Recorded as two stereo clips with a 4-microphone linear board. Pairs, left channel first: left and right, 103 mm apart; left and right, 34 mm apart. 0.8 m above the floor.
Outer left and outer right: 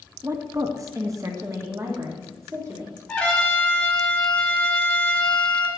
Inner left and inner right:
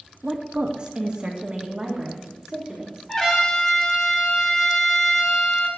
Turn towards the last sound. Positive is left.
turn(degrees=10)  # may be behind; listen again after turning